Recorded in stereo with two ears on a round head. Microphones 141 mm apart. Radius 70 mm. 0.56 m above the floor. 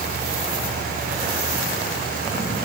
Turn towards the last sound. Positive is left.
No sound to turn to.